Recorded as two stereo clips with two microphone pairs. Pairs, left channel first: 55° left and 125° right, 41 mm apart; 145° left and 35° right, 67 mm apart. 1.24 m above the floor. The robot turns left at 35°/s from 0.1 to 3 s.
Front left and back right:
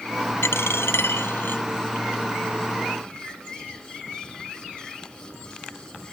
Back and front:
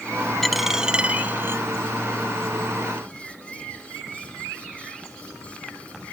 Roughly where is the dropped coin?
Ahead left.